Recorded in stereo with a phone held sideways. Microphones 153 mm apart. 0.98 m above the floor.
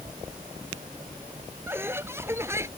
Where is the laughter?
15° right (ahead or behind).